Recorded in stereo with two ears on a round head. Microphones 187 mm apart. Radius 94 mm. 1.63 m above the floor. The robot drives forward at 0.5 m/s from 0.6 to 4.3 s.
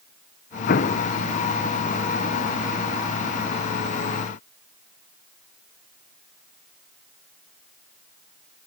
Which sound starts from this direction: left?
An explosion, at 0.7 s.